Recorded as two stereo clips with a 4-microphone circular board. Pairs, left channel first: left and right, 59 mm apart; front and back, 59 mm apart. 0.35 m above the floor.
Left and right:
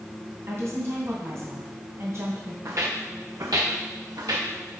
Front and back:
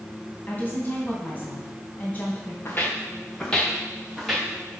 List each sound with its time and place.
0.5 s a woman speaking: 55° right, 2.5 m
2.6 s footsteps: 50° right, 1.7 m; by 4.8 s 100° right, 2.5 m